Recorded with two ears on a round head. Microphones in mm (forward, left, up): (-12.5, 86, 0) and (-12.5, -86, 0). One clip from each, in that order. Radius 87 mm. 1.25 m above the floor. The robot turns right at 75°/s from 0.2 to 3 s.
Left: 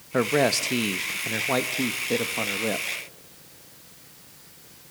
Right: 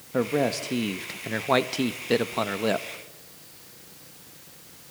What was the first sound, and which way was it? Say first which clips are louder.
A man speaking: left 3 dB; 110° left.